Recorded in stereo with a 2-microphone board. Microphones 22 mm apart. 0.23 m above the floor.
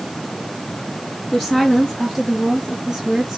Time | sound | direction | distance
1.3 | a woman speaking | 15° left (ahead or behind) | 2.5 m